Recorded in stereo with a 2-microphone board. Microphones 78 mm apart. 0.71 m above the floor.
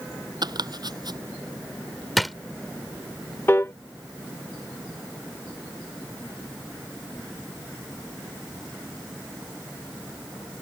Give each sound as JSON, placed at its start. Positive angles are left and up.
{"t": 0.4, "sound": "chopping", "side_deg": -60}
{"t": 2.2, "sound": "a drawer", "side_deg": 0}
{"t": 3.5, "sound": "a piano", "side_deg": 30}